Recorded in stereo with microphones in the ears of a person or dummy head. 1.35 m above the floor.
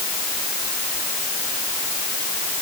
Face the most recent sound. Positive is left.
No sound to turn to.